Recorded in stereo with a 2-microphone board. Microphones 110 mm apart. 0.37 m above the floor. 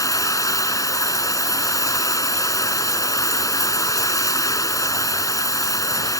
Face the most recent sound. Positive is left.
turn(degrees=30)  # may be behind; listen again after turning